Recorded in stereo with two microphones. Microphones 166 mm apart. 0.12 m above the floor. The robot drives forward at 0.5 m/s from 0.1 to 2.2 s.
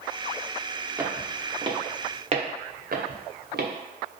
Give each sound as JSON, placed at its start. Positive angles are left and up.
{"t": 1.0, "sound": "footsteps", "side_deg": -15, "distance_m": 0.9}